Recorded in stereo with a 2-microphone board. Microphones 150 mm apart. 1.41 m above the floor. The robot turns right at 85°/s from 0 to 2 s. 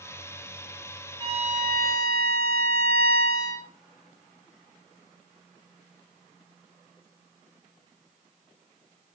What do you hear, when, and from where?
1.2 s a violin: 150° right, 5 m; by 3.7 s 85° right, 5 m